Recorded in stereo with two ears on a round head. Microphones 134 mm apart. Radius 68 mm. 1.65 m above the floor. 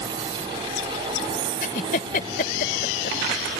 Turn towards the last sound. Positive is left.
turn(degrees=60)  # may be behind; listen again after turning